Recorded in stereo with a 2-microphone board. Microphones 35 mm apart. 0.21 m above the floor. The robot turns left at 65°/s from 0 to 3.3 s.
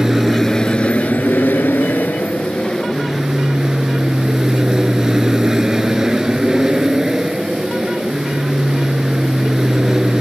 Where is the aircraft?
160° right; by 10.2 s 15° right.